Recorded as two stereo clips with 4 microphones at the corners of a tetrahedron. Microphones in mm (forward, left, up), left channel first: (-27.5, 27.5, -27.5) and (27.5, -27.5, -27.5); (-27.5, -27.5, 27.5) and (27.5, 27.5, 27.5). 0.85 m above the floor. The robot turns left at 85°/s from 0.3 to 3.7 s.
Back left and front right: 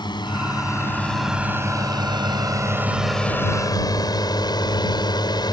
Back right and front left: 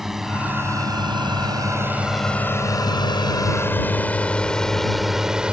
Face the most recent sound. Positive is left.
turn(degrees=120)